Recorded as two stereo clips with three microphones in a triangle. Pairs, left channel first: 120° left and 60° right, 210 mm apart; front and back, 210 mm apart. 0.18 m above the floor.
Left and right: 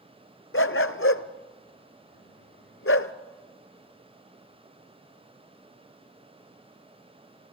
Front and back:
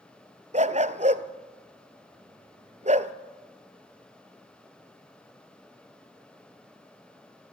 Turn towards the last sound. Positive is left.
turn(degrees=125)